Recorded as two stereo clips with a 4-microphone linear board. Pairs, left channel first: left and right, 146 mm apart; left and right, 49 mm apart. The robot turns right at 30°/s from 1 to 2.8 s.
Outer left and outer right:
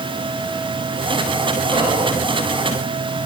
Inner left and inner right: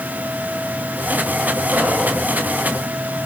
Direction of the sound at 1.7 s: 80° right.